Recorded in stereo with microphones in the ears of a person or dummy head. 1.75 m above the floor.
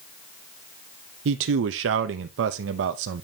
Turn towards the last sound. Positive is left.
turn(degrees=-65)  # may be behind; listen again after turning